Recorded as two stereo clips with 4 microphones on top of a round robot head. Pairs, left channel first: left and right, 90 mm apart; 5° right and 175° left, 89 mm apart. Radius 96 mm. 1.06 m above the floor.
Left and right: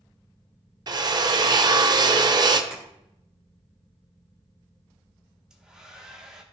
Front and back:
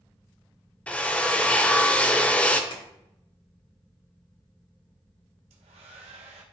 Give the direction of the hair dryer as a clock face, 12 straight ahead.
6 o'clock.